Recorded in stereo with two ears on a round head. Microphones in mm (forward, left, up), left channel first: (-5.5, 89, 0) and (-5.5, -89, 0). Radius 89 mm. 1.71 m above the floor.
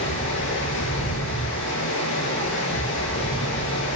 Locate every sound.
0.0 s running water: 65° left (ahead or behind), 8 m